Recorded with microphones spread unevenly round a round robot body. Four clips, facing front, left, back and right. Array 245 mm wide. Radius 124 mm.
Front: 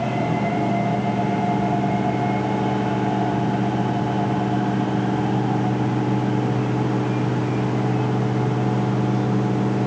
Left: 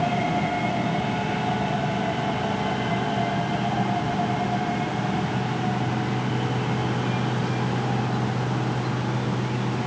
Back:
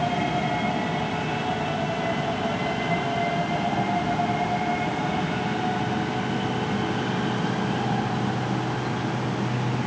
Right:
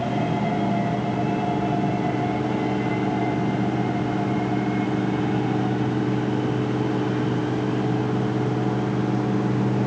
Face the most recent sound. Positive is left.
No sound to turn to.